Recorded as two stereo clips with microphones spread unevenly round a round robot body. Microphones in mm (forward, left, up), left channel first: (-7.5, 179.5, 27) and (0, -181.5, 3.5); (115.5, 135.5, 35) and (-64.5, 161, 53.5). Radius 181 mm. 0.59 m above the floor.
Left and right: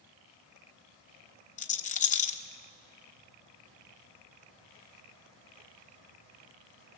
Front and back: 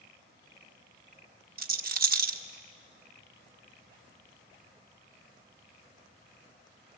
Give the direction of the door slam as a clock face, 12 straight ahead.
No door slam in this recording.